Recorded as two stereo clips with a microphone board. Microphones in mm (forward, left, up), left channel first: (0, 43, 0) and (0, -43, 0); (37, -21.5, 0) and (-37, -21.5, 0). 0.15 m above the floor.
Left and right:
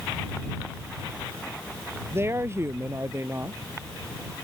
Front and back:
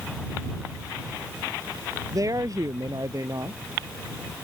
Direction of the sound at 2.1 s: 145° right.